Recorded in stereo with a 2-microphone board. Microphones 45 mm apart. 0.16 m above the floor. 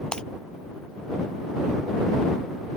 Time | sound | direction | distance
0.1 | breaking glass | 20° left (ahead or behind) | ?